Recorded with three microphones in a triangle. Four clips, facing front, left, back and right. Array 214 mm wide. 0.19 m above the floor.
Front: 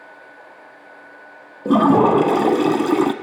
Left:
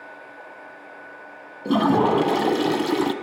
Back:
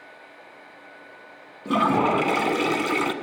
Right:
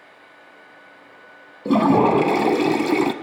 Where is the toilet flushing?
15° right, 0.6 m.